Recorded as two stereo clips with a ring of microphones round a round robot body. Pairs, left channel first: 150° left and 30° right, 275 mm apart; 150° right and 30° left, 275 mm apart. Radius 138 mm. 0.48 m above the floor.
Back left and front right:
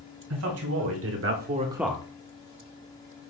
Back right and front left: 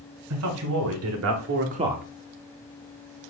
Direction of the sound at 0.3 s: Straight ahead.